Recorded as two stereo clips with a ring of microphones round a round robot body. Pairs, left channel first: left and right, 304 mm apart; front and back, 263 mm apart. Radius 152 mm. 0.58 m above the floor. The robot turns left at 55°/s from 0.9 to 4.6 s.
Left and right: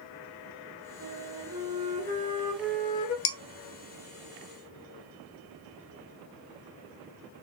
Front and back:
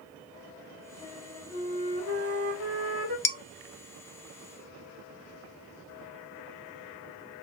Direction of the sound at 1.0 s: 90° right.